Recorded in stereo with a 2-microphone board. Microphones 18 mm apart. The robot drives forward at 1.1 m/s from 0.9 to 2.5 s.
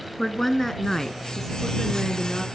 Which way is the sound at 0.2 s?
20° left (ahead or behind).